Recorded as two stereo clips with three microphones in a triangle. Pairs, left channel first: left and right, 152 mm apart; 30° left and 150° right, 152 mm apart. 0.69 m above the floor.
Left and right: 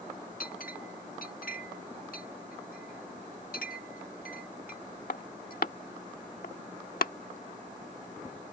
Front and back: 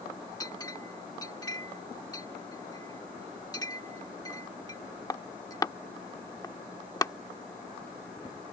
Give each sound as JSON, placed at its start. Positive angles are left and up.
{"t": 0.4, "sound": "a clink", "azimuth_deg": 95}